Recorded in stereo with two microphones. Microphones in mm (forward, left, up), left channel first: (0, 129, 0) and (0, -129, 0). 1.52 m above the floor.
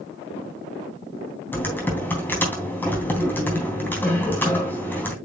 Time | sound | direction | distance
1.5 | typing on a keyboard | 5° left (ahead or behind) | 3 m